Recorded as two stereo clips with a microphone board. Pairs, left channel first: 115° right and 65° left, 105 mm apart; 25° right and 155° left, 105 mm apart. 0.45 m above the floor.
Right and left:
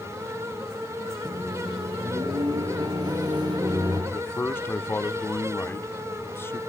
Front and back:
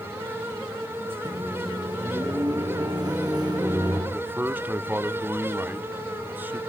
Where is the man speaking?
150° right, 0.8 m.